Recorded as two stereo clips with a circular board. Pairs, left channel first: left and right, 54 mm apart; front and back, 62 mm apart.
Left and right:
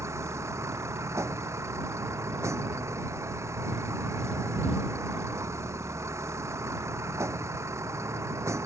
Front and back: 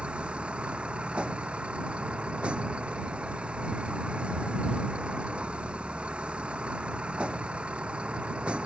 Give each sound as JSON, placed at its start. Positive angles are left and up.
{"t": 0.0, "sound": "a vehicle", "azimuth_deg": -105}